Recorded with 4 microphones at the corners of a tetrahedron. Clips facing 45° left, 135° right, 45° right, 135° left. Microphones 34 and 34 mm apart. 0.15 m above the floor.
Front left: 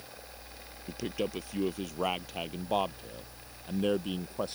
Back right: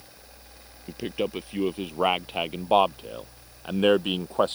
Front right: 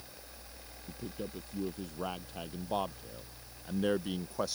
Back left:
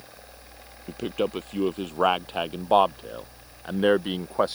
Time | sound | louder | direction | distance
0.9 | a man speaking | back right 5 dB, back left 15 dB | 155° left | ?